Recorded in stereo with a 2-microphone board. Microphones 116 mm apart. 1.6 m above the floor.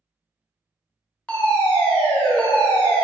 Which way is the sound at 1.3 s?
10° left (ahead or behind).